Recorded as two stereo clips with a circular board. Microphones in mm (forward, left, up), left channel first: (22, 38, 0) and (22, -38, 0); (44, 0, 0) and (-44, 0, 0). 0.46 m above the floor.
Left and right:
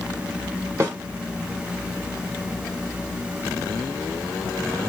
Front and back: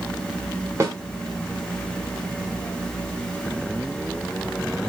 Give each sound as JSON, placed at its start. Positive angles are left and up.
{"t": 0.8, "sound": "a snare drum", "azimuth_deg": -130, "distance_m": 1.1}